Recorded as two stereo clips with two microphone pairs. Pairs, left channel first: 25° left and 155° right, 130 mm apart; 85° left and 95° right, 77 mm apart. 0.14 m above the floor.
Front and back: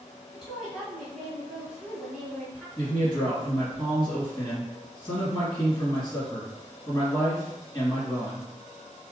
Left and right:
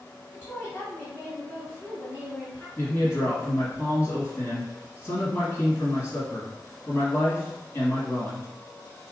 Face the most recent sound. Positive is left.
turn(degrees=70)